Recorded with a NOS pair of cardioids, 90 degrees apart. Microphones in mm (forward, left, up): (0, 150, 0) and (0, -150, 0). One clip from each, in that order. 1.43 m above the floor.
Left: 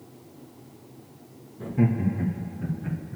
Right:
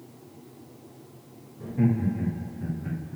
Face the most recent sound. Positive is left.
turn(degrees=25)